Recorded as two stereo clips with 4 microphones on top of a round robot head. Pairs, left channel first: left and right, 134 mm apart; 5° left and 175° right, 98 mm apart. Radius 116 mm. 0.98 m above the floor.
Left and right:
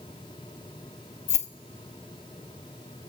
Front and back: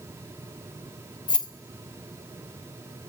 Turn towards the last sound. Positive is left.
turn(degrees=55)